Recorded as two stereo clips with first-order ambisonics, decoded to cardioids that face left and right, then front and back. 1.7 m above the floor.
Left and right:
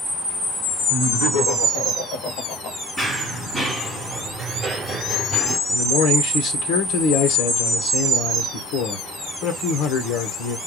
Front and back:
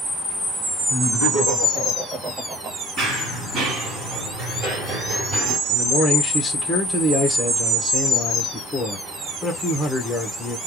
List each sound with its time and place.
0.9 s laughter: 100° left, 2.5 m; by 2.8 s 130° left, 1.2 m
3.0 s running footsteps: 165° left, 2 m; by 5.6 s 130° right, 1.9 m
5.7 s a man speaking: 85° left, 1.2 m